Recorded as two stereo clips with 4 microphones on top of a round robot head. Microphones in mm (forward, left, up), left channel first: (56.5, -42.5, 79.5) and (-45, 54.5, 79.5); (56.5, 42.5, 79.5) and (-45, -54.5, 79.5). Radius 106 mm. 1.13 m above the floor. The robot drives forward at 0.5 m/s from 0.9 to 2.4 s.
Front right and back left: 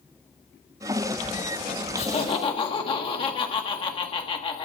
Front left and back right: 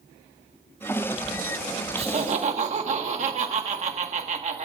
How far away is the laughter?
About 1.5 m.